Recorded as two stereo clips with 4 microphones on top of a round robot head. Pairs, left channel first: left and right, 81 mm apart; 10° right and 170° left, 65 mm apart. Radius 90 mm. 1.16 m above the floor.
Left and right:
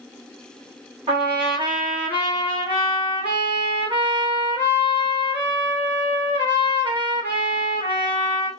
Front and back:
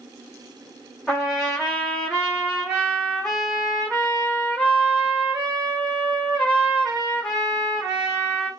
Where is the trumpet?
100° right, 1.9 m.